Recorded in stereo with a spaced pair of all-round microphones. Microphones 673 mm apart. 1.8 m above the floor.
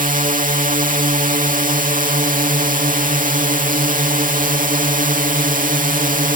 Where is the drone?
10° right (ahead or behind).